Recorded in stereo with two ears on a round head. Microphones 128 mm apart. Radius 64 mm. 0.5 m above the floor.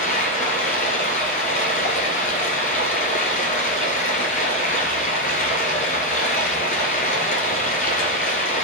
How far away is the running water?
About 1.3 m.